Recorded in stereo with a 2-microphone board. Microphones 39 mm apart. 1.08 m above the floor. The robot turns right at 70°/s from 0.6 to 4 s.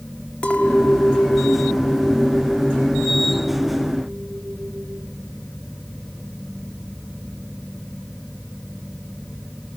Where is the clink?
35° left, 1.3 m; by 5.1 s 90° right, 1.3 m.